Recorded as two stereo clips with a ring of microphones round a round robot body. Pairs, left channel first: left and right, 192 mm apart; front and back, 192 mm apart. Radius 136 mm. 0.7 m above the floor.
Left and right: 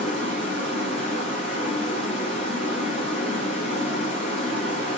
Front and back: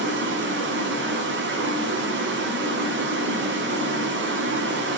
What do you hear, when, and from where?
0.0 s running water: 160° left, 0.8 m